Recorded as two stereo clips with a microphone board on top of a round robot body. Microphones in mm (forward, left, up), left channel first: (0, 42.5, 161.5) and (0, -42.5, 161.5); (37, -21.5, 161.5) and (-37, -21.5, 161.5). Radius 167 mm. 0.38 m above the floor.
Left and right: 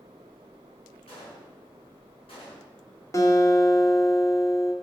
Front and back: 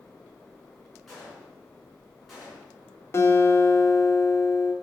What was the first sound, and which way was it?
A gunshot, 90° left.